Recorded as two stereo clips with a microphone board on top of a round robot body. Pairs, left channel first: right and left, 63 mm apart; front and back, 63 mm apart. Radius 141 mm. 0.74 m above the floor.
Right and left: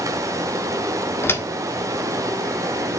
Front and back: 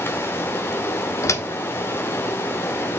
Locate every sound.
0.0 s running water: 55° left, 0.9 m
1.2 s a door slam: 40° right, 1.6 m